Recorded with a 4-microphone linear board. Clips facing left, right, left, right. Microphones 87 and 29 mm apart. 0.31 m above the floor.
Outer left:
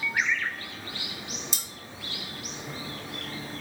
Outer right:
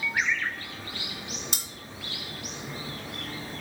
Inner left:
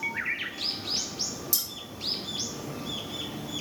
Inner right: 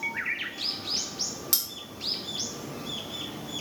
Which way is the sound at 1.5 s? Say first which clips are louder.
Outer right 2 dB, inner right 2 dB; 60° right (ahead or behind).